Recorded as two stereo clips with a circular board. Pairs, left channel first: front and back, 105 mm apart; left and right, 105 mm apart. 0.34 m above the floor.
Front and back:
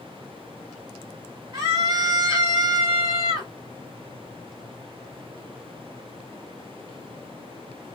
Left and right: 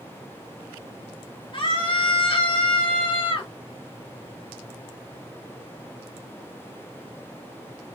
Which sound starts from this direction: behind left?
A scream, at 1.5 s.